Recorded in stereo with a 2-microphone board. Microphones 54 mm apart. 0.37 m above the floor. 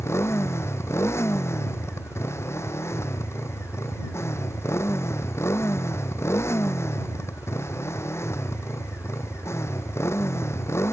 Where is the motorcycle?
50° left (ahead or behind).